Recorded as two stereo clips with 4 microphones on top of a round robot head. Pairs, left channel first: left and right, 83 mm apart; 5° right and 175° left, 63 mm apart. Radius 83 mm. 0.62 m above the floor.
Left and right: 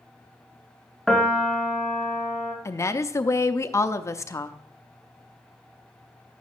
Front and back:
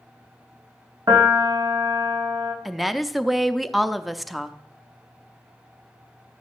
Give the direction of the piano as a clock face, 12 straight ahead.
6 o'clock.